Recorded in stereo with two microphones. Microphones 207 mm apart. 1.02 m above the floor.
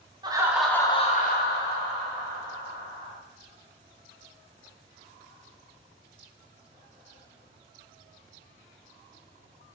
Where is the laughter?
20° right (ahead or behind), 0.6 m; by 3.2 s 65° left (ahead or behind), 1.5 m.